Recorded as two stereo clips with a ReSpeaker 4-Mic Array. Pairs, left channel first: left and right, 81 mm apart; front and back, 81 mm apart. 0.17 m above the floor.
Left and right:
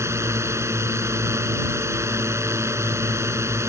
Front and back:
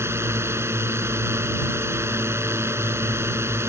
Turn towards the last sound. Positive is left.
turn(degrees=-135)